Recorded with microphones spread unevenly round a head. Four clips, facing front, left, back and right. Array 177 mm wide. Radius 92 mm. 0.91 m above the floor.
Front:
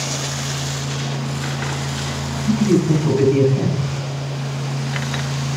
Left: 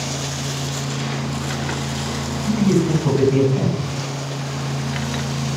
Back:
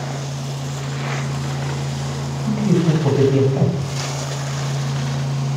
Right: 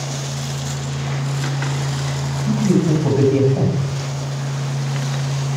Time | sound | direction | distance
2.5 | a man speaking | 160° right | 4.5 m